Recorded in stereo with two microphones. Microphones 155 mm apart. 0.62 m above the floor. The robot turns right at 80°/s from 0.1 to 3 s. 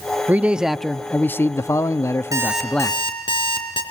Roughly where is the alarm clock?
Ahead right.